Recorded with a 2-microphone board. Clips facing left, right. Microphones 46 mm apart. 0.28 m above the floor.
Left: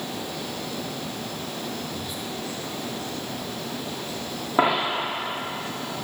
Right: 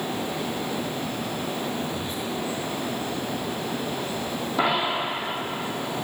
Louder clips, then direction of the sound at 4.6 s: Left 2 dB; 35° left (ahead or behind).